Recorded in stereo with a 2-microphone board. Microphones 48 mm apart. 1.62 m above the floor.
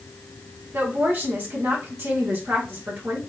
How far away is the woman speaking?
About 2.5 m.